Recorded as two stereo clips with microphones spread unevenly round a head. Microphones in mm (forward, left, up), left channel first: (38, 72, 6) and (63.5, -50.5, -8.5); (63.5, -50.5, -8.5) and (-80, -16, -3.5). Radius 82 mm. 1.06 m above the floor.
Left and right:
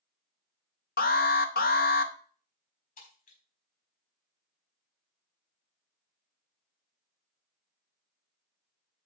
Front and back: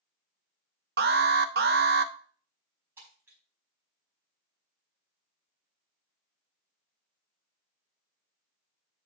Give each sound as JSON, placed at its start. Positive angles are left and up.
{"t": 1.0, "sound": "an alarm", "azimuth_deg": 130, "distance_m": 0.7}
{"t": 3.0, "sound": "breaking glass", "azimuth_deg": 90, "distance_m": 4.5}